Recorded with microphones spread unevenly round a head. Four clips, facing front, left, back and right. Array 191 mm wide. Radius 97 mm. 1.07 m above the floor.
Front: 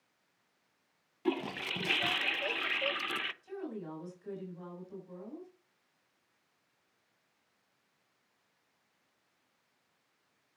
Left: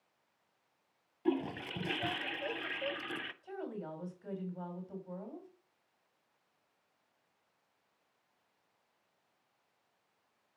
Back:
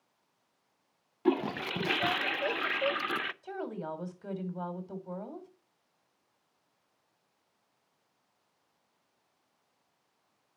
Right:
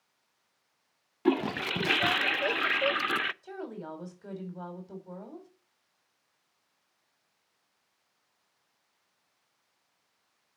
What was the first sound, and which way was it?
A toilet flushing, 85° right.